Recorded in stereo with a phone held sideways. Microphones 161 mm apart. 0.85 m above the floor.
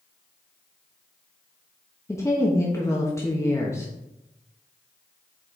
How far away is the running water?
No running water in this recording.